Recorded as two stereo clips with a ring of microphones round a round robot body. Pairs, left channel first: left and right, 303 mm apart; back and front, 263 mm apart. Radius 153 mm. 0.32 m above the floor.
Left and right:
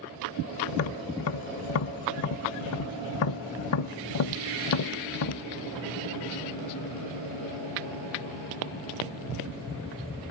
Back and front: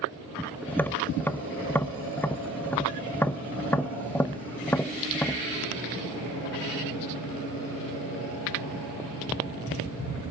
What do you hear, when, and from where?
0.7 s tapping: 100° left, 0.6 m